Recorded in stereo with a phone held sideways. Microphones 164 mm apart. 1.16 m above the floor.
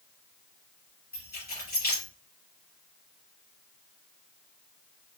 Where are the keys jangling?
80° left, 2.5 m.